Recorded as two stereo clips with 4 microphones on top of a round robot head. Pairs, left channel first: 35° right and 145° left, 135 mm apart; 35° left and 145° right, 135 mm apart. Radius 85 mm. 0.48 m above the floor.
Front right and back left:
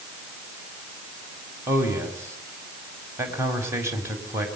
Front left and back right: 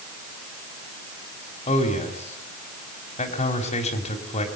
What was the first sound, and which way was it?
A man speaking, 70° left.